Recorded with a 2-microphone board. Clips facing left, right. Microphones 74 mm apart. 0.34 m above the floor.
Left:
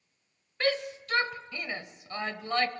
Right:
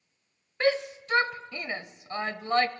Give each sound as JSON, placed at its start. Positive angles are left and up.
{"t": 0.6, "sound": "a shout", "side_deg": -20, "distance_m": 1.1}